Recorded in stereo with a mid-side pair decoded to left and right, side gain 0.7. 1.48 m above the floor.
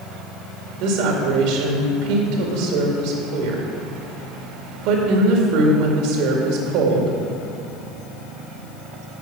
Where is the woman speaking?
70° right, 2 m.